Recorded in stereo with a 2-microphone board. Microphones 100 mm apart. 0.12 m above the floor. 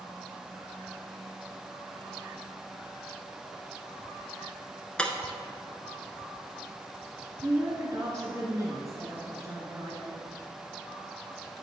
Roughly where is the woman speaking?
Right.